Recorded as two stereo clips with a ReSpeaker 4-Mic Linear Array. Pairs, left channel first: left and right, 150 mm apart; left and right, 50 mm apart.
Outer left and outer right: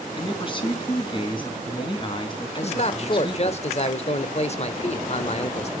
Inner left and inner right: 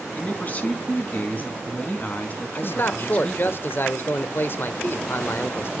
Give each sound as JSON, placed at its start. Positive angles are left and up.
{"t": 0.1, "sound": "a man speaking", "side_deg": 35, "distance_m": 4.0}
{"t": 2.5, "sound": "a man speaking", "side_deg": 45, "distance_m": 1.1}